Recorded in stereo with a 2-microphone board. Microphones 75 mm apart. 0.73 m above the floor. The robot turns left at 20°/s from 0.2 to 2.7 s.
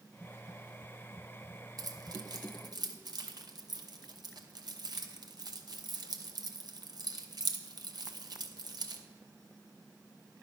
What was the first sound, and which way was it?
Keys jangling, 55° right (ahead or behind).